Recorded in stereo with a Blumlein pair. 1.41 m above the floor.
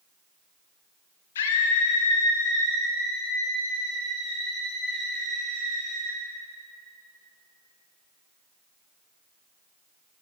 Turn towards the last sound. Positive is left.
turn(degrees=0)